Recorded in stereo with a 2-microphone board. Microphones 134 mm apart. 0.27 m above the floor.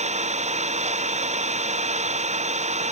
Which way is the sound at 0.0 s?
60° right (ahead or behind).